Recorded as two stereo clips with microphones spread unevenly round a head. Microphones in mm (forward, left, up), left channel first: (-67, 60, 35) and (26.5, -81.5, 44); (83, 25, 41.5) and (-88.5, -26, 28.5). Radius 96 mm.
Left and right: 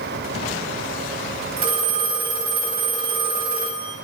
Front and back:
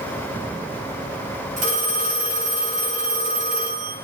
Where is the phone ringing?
115° right, 4 m.